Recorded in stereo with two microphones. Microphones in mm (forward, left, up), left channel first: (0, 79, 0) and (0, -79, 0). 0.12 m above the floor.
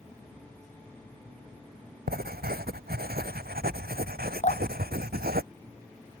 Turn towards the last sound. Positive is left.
turn(degrees=45)  # may be behind; listen again after turning